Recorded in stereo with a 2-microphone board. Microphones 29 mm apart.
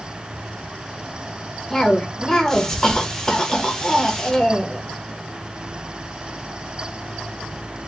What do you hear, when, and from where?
1.7 s a cough: 15° left (ahead or behind), 0.7 m